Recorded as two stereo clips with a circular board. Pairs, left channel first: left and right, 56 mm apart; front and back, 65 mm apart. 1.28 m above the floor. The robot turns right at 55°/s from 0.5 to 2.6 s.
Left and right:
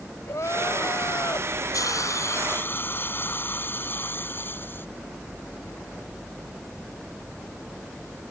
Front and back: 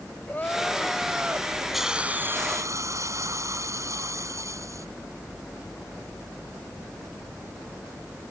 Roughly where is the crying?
Ahead left.